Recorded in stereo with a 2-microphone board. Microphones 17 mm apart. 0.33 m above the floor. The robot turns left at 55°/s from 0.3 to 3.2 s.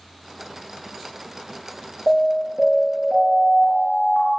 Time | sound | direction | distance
2.1 | an alarm | straight ahead | 4.5 m